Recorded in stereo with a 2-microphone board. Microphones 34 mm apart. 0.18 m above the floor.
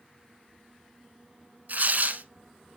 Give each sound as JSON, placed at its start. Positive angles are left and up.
{"t": 1.7, "sound": "tearing paper", "side_deg": -55, "distance_m": 0.8}